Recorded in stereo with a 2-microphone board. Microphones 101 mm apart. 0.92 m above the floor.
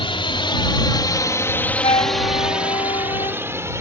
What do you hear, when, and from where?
0.0 s a drone: 70° left (ahead or behind); by 3.8 s 30° right (ahead or behind)
1.8 s a flute: 75° left (ahead or behind)